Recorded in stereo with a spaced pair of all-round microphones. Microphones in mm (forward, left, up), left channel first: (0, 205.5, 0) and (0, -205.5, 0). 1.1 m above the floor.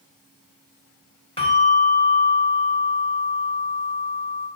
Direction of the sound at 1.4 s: 15° left (ahead or behind).